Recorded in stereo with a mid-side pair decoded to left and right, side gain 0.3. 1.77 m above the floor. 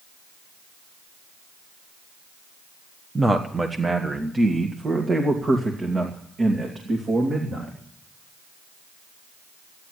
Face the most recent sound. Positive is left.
turn(degrees=-60)